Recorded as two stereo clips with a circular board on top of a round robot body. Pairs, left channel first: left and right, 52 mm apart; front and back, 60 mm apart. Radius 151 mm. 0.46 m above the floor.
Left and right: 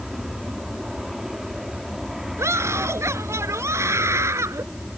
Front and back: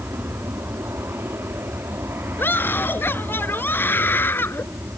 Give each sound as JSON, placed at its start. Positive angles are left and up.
{"t": 0.0, "sound": "an aircraft", "azimuth_deg": -170}
{"t": 2.4, "sound": "a scream", "azimuth_deg": -55}